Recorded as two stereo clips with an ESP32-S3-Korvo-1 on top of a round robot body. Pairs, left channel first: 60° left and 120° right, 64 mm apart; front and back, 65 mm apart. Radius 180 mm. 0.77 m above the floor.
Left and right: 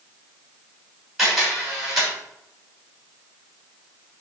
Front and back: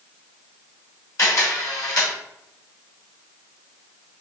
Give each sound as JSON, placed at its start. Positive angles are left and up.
{"t": 1.2, "sound": "a camera shutter", "azimuth_deg": -30, "distance_m": 3.0}